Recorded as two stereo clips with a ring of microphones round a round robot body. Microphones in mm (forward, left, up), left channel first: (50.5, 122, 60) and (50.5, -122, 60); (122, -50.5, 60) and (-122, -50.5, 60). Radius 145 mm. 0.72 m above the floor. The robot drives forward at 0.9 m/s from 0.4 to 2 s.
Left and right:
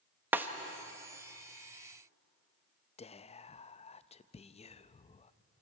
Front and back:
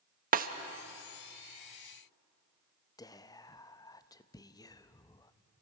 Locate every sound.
0.3 s a snare drum: 165° right, 0.9 m; by 0.5 s 170° right, 0.9 m
3.0 s whispering: 60° left, 0.6 m